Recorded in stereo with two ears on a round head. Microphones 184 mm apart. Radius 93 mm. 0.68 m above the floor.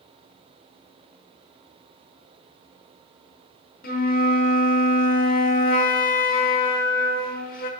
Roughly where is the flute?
Left.